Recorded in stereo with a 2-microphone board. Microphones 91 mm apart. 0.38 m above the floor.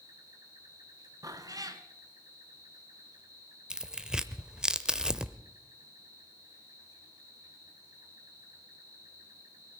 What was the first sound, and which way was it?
An insect, 45° right (ahead or behind).